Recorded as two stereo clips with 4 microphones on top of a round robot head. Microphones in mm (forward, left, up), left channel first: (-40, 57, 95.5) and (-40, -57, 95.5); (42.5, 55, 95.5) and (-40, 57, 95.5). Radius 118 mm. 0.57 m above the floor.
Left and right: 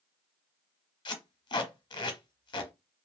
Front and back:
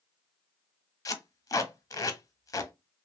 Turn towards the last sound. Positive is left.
turn(degrees=45)